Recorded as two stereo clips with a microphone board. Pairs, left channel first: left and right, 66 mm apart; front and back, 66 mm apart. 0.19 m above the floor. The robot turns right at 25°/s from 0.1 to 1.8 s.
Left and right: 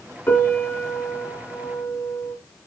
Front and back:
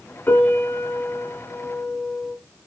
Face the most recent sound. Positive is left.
turn(degrees=90)